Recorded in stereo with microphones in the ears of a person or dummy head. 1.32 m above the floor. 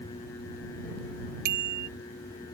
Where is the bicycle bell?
55° right (ahead or behind).